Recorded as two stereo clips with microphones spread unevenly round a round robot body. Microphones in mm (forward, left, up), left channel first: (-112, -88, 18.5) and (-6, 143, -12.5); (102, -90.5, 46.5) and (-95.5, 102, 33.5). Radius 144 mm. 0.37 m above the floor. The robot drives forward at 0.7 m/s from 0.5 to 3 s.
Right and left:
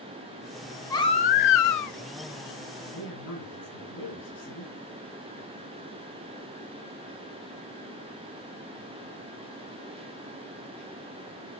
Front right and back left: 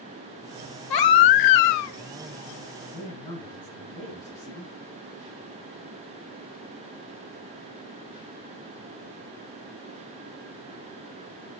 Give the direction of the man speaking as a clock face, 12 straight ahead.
4 o'clock.